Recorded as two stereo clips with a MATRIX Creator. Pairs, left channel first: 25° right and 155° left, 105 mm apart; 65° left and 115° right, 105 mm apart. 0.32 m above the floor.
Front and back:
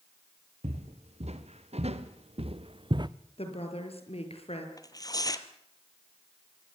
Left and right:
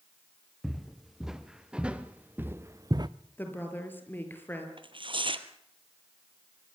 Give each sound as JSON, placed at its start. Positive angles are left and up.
{"t": 0.6, "sound": "footsteps", "azimuth_deg": 160, "distance_m": 3.5}
{"t": 3.4, "sound": "a woman speaking", "azimuth_deg": 0, "distance_m": 5.5}
{"t": 4.8, "sound": "tearing paper", "azimuth_deg": -75, "distance_m": 1.5}